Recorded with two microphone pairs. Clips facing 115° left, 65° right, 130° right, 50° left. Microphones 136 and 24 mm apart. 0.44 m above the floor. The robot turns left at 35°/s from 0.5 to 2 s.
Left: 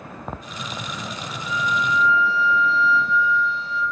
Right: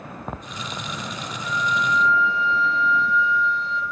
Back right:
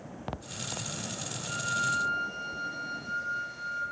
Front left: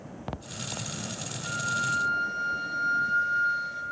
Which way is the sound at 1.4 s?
50° left.